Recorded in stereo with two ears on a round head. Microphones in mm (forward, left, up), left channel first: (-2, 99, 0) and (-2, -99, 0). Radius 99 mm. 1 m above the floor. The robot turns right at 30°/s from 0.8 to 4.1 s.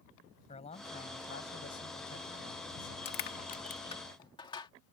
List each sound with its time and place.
0.5 s a man speaking: 30° left; by 3.0 s 95° left
3.0 s crushing: 50° left (ahead or behind); by 4.7 s 20° left (ahead or behind)